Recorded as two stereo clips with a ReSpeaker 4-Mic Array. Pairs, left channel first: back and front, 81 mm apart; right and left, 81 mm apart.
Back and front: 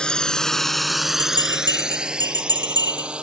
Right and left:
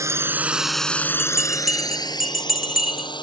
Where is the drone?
105° left; by 3.2 s 80° right.